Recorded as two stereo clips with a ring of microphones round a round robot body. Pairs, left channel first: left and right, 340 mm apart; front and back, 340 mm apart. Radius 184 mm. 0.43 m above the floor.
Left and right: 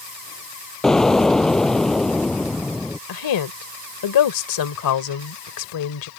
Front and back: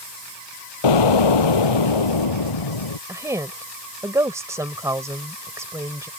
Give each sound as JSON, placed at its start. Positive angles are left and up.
{"t": 0.8, "sound": "an explosion", "azimuth_deg": 0}
{"t": 3.1, "sound": "a woman speaking", "azimuth_deg": 100}